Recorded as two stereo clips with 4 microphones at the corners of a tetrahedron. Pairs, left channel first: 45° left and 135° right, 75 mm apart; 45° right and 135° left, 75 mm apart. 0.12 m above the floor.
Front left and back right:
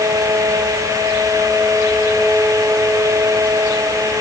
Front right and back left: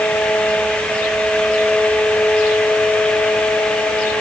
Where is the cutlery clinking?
No cutlery clinking in this recording.